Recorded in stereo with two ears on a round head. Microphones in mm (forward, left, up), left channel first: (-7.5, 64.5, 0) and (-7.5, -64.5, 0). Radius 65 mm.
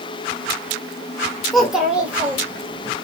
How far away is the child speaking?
About 1.1 m.